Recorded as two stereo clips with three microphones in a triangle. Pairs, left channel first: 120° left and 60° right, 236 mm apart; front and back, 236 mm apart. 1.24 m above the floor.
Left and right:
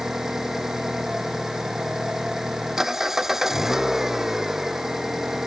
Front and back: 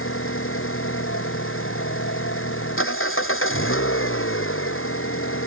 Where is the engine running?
30° left.